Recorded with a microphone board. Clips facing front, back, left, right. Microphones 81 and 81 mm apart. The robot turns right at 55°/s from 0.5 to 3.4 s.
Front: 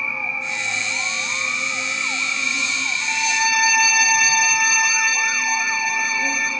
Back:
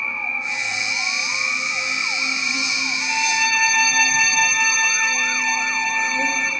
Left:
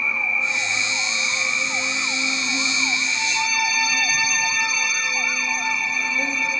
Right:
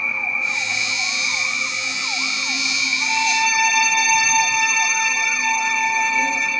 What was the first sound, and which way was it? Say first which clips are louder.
An insect: even, even; 5° right.